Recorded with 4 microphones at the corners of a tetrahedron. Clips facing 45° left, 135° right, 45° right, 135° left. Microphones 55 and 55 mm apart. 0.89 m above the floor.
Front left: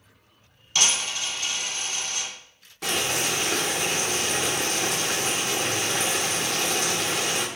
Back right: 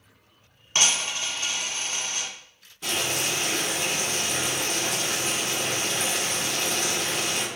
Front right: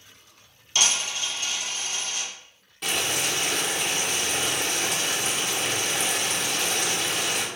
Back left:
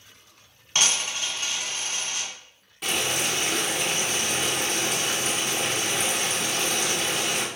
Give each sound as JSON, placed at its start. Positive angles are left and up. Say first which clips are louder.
{"t": 0.8, "sound": "a dropped coin", "louder": "even, even", "azimuth_deg": 175, "distance_m": 1.3}
{"t": 2.8, "sound": "boiling", "louder": "front left 2 dB, even", "azimuth_deg": 50, "distance_m": 0.9}